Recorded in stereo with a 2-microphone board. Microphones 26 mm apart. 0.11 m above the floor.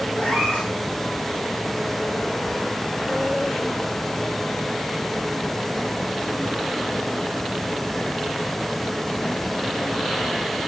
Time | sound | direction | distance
0.2 | a cat meowing | 50° left (ahead or behind) | 4 m